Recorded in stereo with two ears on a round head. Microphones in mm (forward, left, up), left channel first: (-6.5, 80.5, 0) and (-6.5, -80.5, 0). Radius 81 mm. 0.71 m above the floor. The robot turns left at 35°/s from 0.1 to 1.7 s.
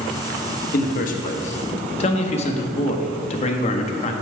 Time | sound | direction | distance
0.7 | a man speaking | 85° left | 0.7 m